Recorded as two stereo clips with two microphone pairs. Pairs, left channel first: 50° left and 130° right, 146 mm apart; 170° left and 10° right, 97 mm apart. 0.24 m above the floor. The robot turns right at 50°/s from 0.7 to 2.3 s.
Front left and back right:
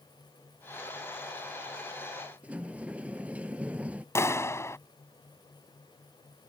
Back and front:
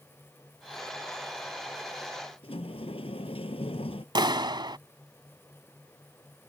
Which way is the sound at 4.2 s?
20° right.